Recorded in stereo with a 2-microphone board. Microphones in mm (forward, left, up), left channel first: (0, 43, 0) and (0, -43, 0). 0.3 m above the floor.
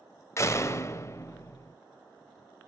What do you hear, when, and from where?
0.4 s a door slam: 35° left (ahead or behind), 0.8 m